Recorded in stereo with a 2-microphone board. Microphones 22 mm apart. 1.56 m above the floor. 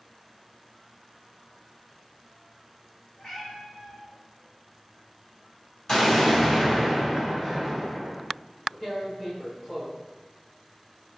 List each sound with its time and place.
3.2 s a cat meowing: 50° left (ahead or behind), 1.7 m
5.9 s an explosion: 30° left (ahead or behind), 1.6 m
8.8 s tearing paper: 20° left (ahead or behind), 1.2 m